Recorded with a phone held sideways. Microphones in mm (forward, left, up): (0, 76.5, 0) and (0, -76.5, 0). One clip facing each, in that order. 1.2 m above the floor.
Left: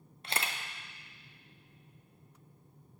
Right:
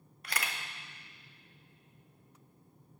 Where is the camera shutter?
25° left (ahead or behind), 0.6 m.